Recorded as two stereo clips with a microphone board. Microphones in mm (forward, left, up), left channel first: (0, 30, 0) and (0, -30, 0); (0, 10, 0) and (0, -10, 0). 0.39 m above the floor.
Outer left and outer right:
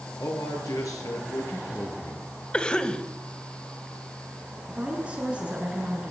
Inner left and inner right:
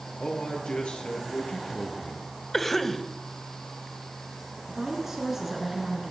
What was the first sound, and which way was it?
A man speaking, 80° left.